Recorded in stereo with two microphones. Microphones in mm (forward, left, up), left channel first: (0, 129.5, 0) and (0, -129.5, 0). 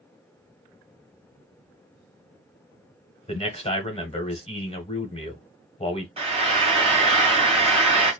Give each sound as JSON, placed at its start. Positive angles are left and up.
{"t": 3.3, "sound": "a man speaking", "side_deg": 25, "distance_m": 1.0}
{"t": 6.2, "sound": "frying", "side_deg": -25, "distance_m": 1.7}